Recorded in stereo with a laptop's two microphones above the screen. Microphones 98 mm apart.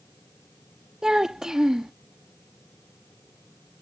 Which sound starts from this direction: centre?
A child speaking, at 1.0 s.